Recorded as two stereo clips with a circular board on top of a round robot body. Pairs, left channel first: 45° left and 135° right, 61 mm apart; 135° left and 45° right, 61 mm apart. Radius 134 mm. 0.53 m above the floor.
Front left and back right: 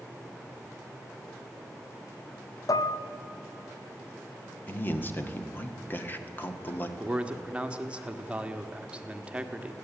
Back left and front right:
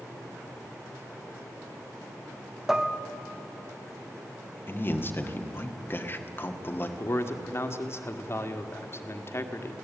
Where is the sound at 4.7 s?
95° left, 1.9 m.